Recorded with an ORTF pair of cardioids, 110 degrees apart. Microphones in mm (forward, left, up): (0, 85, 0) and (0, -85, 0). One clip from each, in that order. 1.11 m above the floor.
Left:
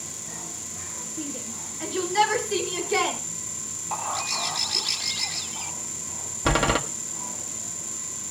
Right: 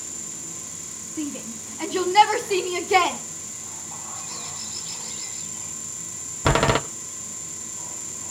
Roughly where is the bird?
Ahead left.